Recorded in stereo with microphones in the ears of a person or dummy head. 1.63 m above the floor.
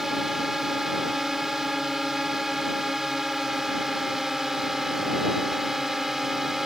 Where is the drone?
Centre (ahead or behind).